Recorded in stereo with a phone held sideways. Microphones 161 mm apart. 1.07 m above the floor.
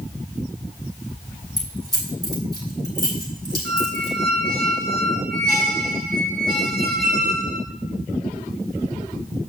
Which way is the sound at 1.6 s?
20° right (ahead or behind).